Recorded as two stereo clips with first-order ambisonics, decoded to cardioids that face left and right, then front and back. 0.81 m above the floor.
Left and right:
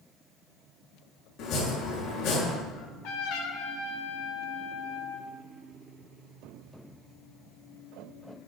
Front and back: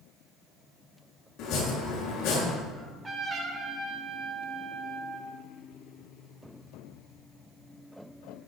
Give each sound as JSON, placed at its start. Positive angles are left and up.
{"t": 1.4, "sound": "chopping", "azimuth_deg": 45, "distance_m": 7.0}
{"t": 2.7, "sound": "a trumpet", "azimuth_deg": 110, "distance_m": 2.5}